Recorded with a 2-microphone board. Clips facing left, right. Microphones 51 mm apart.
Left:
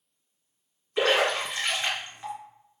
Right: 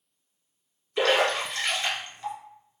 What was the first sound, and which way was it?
A splash, 20° left (ahead or behind).